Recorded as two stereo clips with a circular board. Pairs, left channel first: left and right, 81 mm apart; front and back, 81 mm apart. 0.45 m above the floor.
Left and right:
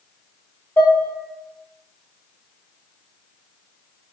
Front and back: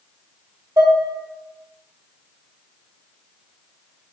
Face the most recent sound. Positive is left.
turn(degrees=150)